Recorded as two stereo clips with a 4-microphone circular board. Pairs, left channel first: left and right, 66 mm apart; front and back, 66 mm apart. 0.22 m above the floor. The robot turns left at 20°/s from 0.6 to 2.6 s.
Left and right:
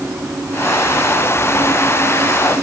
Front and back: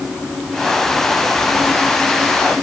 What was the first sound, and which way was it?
Only background noise.